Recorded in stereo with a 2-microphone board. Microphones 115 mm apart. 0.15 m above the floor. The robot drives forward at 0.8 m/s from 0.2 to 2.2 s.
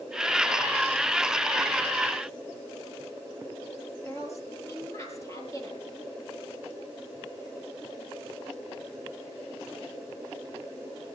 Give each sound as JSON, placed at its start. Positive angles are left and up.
{"t": 4.0, "sound": "a woman speaking", "side_deg": 30, "distance_m": 4.5}